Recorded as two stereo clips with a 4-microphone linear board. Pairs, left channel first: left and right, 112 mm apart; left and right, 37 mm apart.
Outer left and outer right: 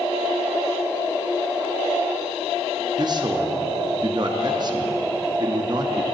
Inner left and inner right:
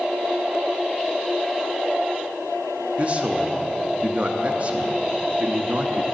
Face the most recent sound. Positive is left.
turn(degrees=-40)  # may be behind; listen again after turning